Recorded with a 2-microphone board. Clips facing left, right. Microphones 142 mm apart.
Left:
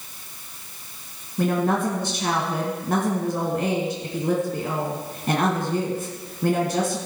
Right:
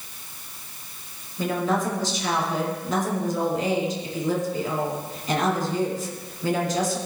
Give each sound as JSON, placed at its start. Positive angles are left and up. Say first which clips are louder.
{"t": 1.4, "sound": "a woman speaking", "louder": "left 3 dB", "side_deg": 60, "distance_m": 2.5}